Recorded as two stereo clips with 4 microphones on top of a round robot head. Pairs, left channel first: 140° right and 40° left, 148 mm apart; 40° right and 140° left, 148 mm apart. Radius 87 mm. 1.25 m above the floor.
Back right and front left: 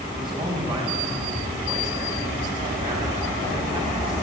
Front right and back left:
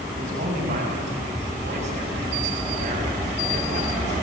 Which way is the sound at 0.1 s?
100° left.